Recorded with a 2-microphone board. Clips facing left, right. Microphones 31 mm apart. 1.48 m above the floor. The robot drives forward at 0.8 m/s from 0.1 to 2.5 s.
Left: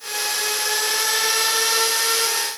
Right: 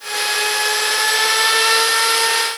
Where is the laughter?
No laughter in this recording.